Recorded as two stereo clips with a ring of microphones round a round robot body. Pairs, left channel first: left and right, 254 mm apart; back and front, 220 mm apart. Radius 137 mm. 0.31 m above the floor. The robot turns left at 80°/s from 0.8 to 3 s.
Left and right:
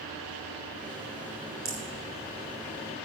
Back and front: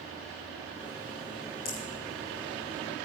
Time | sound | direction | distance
1.6 | a rattle | 130° right | 3.5 m